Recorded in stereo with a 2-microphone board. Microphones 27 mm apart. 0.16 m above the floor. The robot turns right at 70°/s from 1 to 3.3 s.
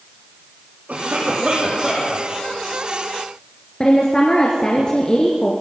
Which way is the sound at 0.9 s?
60° right.